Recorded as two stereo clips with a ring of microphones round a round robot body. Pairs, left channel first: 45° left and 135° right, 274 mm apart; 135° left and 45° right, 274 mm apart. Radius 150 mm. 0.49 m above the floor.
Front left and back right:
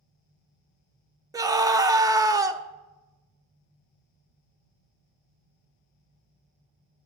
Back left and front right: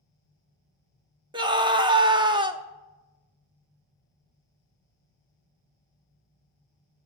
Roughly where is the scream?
Right.